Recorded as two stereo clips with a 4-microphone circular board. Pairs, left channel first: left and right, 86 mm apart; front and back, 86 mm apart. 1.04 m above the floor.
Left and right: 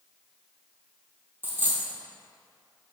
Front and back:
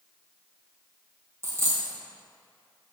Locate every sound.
1.4 s a dropped coin: 145° right, 1.3 m